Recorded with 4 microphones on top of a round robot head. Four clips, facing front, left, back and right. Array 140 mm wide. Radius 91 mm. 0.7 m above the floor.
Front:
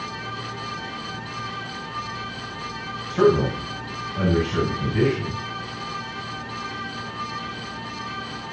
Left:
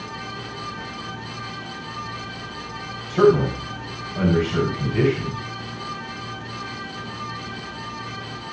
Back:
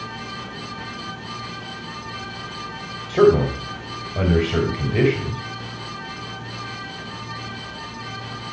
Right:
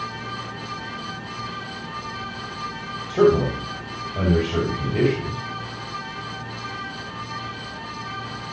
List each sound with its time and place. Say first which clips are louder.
3.1 s a man speaking: left 1 dB, back 3 dB; 160° right, 3 m